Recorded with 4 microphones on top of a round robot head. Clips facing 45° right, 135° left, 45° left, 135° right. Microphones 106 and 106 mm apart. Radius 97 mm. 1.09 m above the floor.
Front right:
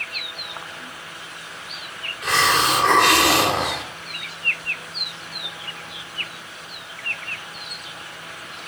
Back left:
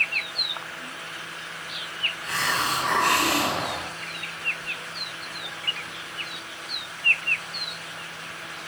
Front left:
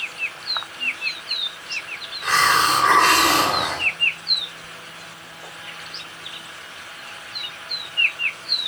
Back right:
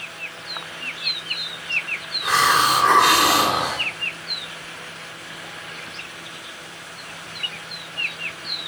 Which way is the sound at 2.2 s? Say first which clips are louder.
Front right 8 dB, even; 55° right.